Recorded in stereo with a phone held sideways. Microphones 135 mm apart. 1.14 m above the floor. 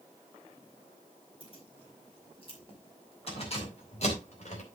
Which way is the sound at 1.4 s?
40° left (ahead or behind).